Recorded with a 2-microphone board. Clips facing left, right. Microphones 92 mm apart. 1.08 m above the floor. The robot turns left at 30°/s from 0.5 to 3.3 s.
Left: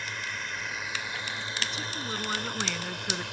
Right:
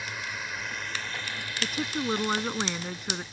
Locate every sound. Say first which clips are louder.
0.0 s a drone: even; 175° right; by 3.3 s 100° left
1.6 s a woman speaking: right 5 dB; 130° right; by 3.2 s straight behind